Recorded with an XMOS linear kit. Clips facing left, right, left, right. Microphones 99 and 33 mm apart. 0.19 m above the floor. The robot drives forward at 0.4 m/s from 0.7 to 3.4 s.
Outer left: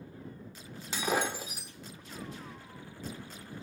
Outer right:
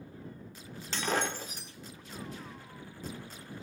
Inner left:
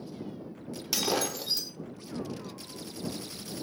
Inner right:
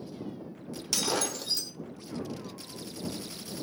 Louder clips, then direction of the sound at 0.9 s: Outer left 1 dB, inner left 1 dB; 10° left (ahead or behind).